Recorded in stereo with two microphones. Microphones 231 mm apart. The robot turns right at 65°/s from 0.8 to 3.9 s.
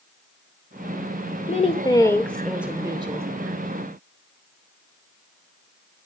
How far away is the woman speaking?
About 1.3 m.